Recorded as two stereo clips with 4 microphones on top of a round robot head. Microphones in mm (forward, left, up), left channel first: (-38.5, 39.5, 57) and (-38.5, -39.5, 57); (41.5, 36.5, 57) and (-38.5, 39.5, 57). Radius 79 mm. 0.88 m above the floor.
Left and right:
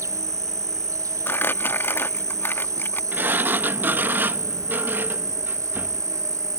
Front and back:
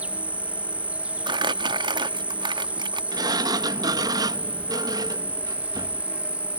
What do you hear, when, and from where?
0.0 s an insect: 115° right
1.3 s crumpling: 155° left
3.1 s a sliding door: 150° right